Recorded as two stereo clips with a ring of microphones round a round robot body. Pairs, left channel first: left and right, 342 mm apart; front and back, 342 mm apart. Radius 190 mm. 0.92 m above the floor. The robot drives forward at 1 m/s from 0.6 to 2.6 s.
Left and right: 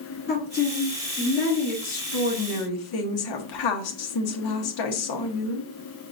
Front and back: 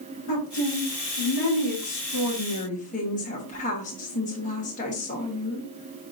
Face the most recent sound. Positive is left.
turn(degrees=70)